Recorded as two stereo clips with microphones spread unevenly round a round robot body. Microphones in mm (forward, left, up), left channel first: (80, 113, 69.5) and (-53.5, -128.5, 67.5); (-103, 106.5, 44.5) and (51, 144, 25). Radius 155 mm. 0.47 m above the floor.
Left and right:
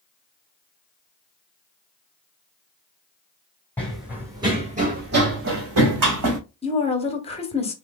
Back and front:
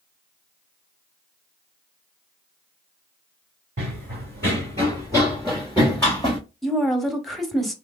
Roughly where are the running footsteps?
Ahead right.